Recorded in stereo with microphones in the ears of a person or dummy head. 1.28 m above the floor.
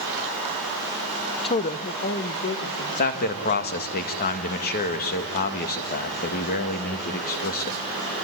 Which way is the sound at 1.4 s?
25° left (ahead or behind).